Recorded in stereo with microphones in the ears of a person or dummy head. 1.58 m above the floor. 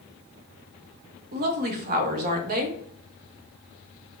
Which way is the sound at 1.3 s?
45° right (ahead or behind).